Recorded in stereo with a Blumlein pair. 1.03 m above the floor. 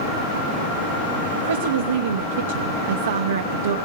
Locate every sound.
1.4 s a woman speaking: 65° right, 0.8 m